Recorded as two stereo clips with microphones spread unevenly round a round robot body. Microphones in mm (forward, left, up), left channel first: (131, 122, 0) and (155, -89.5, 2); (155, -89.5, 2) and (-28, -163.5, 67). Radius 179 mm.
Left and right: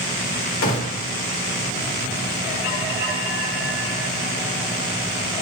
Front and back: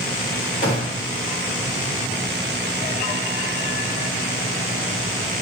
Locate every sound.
0.6 s a gunshot: 85° left, 1.8 m